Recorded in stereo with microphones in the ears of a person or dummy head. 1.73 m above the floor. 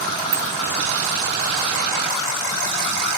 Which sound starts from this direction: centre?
A bicycle bell, at 0.3 s.